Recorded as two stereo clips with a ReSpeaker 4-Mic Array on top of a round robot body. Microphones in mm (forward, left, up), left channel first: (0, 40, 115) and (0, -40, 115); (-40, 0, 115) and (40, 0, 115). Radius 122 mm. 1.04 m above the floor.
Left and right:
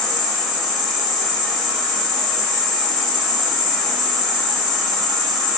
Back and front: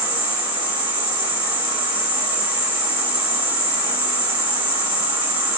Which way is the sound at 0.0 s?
Straight ahead.